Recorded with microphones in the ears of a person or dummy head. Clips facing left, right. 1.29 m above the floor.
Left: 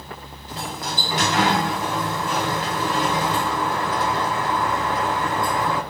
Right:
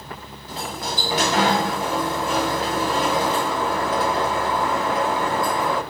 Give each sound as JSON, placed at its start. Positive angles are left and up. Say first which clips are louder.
{"t": 0.5, "sound": "a sliding door", "louder": "right 1 dB", "side_deg": -25, "distance_m": 2.0}